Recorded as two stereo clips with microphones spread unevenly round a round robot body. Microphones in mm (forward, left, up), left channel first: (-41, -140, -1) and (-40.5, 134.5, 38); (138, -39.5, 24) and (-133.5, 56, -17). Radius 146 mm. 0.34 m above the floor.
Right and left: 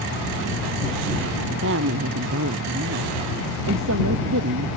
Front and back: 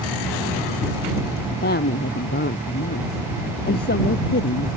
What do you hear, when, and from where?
1.5 s a woman speaking: 40° left